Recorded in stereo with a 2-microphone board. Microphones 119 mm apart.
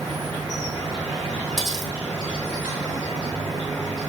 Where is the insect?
15° right (ahead or behind), 4 m.